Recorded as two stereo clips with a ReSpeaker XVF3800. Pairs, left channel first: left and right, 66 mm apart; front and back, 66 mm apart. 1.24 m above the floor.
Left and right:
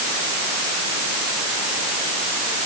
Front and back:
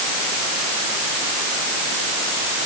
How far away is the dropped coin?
No dropped coin in this recording.